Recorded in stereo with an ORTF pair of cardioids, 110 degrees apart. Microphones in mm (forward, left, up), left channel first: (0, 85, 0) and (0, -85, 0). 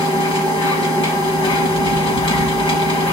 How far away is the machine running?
About 4.5 m.